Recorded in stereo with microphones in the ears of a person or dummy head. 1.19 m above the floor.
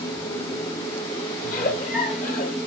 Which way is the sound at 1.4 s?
40° left (ahead or behind).